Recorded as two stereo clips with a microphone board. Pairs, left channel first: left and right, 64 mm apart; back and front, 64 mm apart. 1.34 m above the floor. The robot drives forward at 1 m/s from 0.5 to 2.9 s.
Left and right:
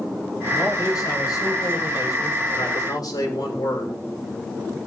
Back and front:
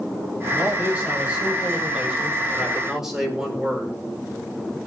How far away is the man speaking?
About 7.5 m.